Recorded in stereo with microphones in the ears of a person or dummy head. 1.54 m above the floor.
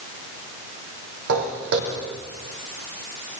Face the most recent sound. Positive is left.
turn(degrees=-60)  # may be behind; listen again after turning